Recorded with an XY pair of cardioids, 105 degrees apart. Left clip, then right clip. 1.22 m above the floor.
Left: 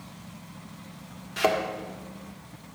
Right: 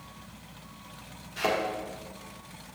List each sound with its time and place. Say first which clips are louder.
1.4 s a thud: left 4 dB; 50° left, 1.7 m